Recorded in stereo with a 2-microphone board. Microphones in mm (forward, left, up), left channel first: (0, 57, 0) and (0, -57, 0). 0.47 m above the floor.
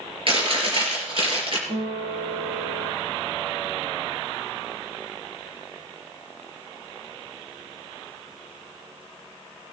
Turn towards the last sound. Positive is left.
turn(degrees=-85)